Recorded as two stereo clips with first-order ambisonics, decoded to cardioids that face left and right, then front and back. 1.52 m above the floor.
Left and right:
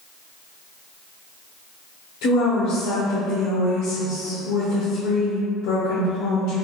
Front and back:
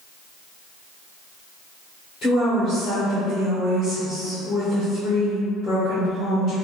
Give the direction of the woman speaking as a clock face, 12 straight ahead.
10 o'clock.